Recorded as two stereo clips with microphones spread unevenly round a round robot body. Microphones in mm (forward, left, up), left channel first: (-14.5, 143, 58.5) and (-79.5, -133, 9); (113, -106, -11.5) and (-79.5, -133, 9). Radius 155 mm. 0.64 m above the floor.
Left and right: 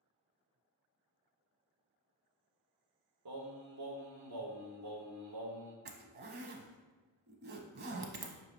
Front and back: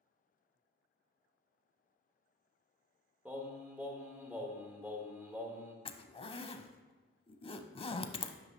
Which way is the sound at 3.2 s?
90° right.